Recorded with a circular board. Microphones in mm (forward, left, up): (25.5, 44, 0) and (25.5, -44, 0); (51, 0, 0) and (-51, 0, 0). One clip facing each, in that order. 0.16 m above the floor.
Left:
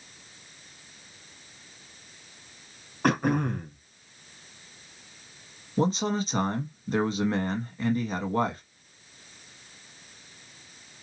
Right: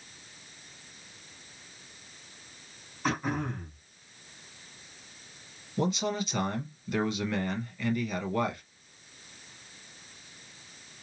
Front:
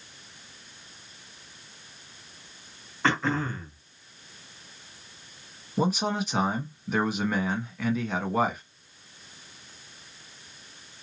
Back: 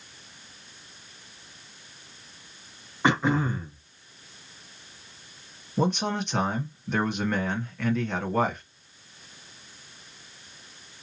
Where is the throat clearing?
105° left, 0.9 m.